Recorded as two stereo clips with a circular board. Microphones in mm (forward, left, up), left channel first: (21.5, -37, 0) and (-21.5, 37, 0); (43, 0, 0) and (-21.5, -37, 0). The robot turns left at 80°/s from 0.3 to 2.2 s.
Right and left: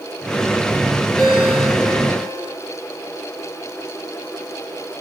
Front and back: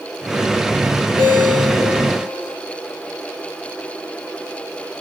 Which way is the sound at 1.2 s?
145° right.